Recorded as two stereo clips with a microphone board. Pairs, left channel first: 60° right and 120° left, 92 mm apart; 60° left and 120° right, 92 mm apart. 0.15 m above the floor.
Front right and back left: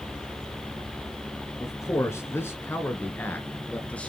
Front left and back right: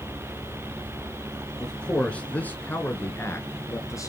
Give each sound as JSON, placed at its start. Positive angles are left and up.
{"t": 1.6, "sound": "a man speaking", "azimuth_deg": -20, "distance_m": 2.5}